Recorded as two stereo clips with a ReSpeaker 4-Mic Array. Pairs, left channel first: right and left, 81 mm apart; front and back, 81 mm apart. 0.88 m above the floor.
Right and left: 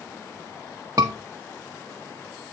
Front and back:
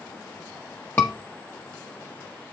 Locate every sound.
1.0 s a scream: 55° left, 0.7 m